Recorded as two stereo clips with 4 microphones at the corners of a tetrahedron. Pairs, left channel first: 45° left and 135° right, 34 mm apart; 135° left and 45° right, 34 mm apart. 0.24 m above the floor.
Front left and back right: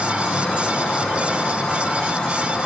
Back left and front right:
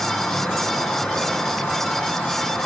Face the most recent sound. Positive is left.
turn(degrees=105)